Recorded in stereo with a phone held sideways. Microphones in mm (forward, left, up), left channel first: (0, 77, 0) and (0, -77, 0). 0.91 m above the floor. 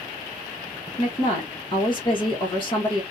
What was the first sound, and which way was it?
A woman speaking, 30° left (ahead or behind).